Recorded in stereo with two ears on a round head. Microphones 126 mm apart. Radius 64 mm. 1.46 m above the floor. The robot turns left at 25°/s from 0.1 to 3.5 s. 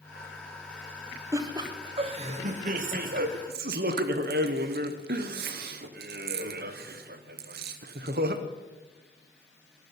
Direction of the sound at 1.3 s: 25° right.